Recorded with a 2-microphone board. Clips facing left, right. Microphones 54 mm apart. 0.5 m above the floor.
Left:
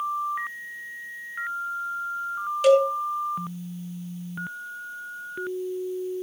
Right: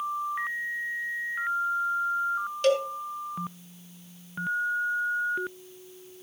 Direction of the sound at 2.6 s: 5° left (ahead or behind).